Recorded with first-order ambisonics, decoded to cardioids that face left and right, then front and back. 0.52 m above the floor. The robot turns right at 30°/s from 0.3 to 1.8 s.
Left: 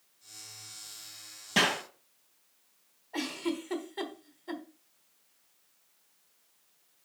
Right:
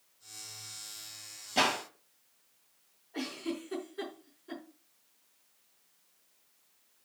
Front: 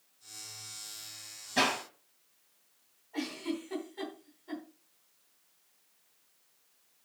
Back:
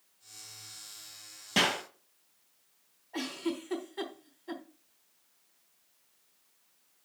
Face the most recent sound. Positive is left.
turn(degrees=110)